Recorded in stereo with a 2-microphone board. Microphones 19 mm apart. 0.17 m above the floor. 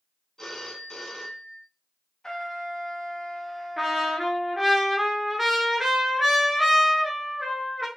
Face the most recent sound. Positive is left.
turn(degrees=-10)  # may be behind; listen again after turning